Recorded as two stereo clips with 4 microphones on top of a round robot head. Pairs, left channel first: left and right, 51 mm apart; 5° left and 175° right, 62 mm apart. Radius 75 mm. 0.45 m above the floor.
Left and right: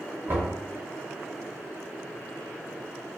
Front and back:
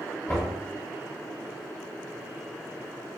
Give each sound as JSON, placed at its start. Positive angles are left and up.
{"t": 0.3, "sound": "knocking", "azimuth_deg": -55, "distance_m": 1.1}